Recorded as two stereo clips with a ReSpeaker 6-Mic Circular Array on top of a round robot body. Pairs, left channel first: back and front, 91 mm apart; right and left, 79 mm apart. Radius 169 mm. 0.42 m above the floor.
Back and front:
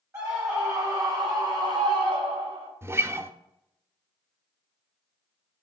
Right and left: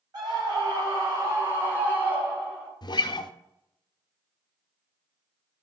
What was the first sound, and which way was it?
A scream, 60° left.